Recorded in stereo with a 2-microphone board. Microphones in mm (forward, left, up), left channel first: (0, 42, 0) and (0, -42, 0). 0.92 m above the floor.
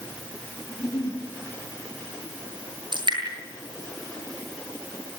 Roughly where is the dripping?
Right.